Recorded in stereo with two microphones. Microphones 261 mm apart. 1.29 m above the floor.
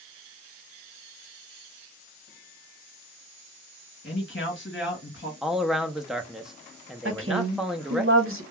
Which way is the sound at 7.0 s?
55° right (ahead or behind).